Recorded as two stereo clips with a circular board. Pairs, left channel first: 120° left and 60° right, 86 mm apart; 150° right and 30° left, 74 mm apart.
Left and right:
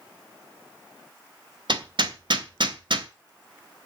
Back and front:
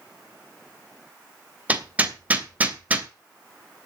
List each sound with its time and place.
1.7 s hammering: 40° right, 2.5 m